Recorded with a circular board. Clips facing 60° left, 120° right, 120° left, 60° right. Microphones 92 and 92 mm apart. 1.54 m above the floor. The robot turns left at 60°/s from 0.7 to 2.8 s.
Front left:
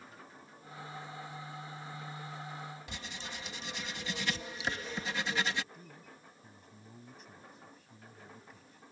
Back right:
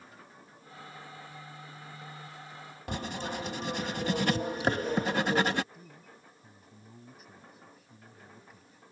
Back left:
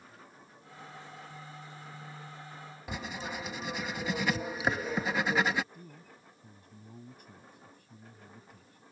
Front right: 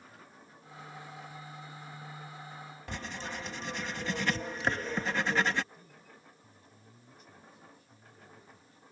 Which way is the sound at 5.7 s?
155° left.